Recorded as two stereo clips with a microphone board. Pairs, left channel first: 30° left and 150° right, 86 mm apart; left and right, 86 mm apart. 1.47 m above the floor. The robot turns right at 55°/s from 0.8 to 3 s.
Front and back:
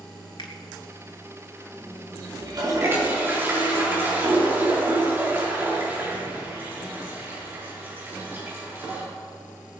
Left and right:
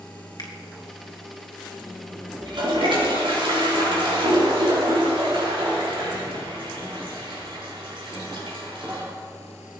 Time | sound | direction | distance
0.4 | a finger snap | 55° left | 1.7 m
2.4 | a toilet flushing | 115° right | 3.5 m